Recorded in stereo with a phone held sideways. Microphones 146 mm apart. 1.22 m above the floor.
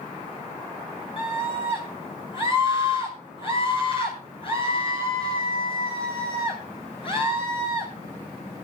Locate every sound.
1.2 s a scream: 35° left (ahead or behind), 9 m